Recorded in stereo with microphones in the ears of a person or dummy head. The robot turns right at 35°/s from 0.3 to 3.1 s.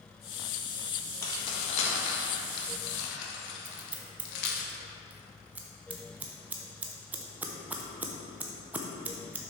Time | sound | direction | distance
1.2 | keys jangling | 20° left (ahead or behind) | 1.6 m
3.6 | scissors | 5° right (ahead or behind) | 0.9 m